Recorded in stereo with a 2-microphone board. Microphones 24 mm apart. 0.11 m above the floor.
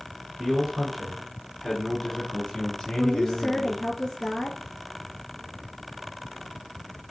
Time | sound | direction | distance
0.4 | a man speaking | 20° right (ahead or behind) | 1.5 m
3.0 | a woman speaking | 25° left (ahead or behind) | 1.7 m